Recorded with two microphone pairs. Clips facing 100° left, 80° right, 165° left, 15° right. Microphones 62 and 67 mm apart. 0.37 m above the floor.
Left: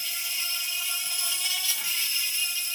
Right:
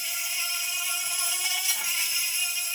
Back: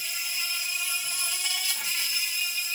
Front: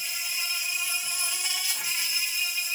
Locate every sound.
0.0 s an insect: 55° right, 1.7 m